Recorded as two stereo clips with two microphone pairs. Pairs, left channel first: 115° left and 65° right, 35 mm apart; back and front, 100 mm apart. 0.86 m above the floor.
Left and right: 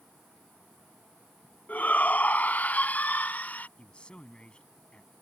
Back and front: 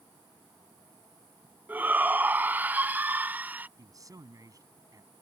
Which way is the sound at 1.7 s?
75° left.